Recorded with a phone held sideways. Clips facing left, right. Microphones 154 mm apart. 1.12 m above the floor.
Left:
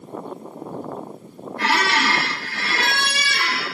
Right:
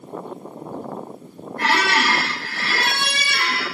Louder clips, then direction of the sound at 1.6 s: Right 1 dB; 50° right (ahead or behind).